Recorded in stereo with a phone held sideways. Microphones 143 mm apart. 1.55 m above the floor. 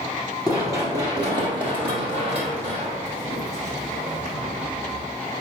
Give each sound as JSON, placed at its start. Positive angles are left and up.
{"t": 0.5, "sound": "running footsteps", "side_deg": -15, "distance_m": 1.9}